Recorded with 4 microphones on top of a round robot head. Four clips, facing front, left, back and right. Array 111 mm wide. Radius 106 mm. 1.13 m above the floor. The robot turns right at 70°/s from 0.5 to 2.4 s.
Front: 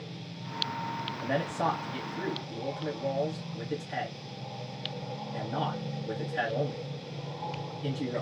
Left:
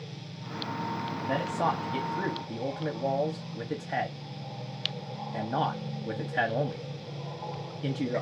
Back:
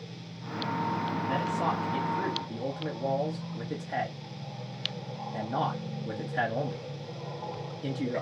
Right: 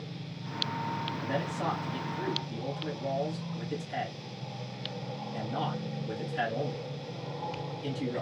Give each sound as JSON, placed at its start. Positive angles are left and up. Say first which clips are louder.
{"t": 1.2, "sound": "a man speaking", "louder": "left 6 dB, front 2 dB", "azimuth_deg": 25, "distance_m": 1.0}